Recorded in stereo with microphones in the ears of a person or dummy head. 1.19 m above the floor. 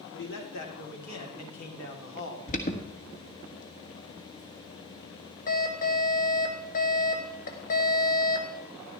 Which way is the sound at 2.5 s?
35° left (ahead or behind).